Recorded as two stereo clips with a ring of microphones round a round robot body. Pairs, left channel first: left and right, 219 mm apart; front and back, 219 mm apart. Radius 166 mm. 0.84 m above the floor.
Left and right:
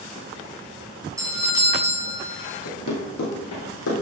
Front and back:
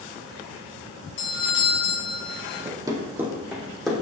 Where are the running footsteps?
110° left, 2.0 m; by 3.9 s 90° left, 3 m.